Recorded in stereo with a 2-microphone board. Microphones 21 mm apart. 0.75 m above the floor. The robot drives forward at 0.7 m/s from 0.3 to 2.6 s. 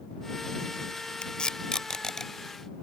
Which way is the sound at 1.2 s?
50° left (ahead or behind).